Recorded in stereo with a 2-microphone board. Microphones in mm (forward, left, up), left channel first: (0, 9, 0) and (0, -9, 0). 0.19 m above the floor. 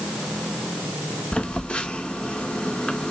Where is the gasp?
No gasp in this recording.